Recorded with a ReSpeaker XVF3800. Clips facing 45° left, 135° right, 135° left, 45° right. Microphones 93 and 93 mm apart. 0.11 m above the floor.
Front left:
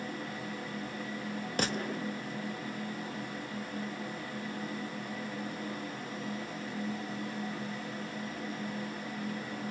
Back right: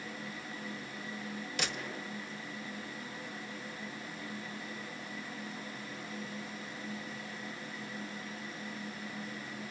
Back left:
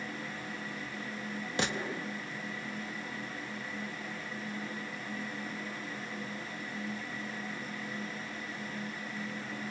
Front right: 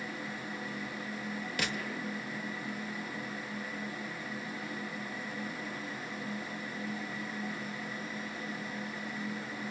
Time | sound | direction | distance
1.6 | a gunshot | 80° left | 0.6 m